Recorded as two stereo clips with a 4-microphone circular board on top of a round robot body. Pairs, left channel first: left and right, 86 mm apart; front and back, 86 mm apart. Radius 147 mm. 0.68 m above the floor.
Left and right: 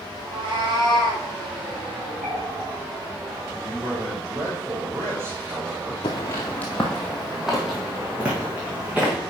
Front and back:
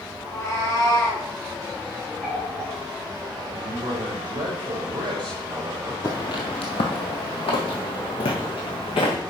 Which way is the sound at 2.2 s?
115° right.